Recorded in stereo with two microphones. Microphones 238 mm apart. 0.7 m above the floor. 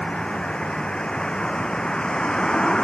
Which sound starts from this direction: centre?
A vehicle, at 0.0 s.